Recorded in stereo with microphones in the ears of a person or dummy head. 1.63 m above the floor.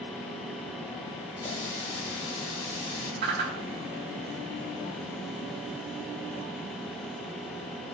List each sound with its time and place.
1.4 s a running tap: 25° left (ahead or behind), 6 m
3.2 s a whoosh: 65° right (ahead or behind), 2.5 m